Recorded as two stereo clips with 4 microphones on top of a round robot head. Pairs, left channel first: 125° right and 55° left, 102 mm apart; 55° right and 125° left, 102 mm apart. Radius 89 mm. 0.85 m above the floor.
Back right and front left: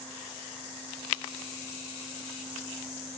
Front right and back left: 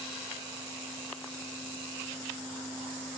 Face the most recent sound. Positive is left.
No sound to turn to.